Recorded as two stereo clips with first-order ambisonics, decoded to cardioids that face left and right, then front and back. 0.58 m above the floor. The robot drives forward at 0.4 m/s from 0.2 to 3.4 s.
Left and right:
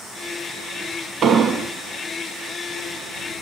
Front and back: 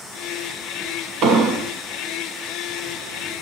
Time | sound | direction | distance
1.2 | an explosion | 150° right | 0.6 m